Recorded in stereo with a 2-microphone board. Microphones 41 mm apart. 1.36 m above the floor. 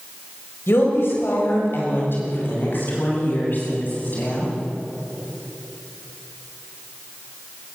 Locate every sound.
0.7 s a woman speaking: 70° left (ahead or behind), 6.5 m; by 4.5 s 45° left (ahead or behind), 10.5 m